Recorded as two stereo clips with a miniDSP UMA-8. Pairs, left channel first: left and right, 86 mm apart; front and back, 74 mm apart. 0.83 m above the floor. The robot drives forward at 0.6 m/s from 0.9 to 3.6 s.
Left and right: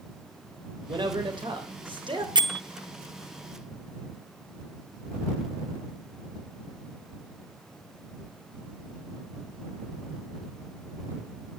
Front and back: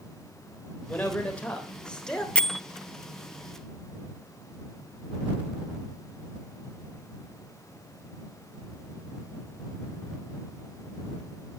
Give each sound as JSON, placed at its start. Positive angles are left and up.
{"t": 0.9, "sound": "a man speaking", "azimuth_deg": -70, "distance_m": 4.0}
{"t": 2.4, "sound": "a bell", "azimuth_deg": -75, "distance_m": 0.7}